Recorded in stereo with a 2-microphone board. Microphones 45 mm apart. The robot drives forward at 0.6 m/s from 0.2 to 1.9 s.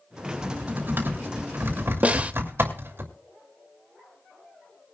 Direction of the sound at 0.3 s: 45° right (ahead or behind).